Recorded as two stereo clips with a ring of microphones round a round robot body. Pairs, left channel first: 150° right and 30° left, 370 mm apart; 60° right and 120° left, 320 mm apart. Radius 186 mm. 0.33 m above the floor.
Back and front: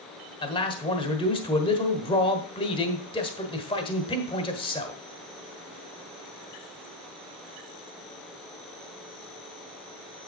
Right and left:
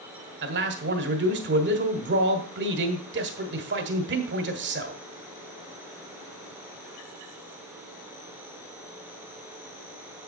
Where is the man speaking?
145° left, 1.4 m.